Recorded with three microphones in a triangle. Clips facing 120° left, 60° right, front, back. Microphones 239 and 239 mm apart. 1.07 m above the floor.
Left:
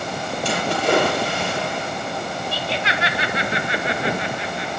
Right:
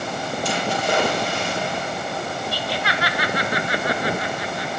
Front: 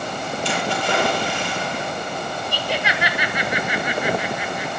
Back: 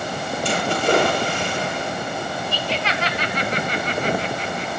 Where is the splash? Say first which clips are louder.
Left 4 dB, back 5 dB; 145° left, 8.5 m.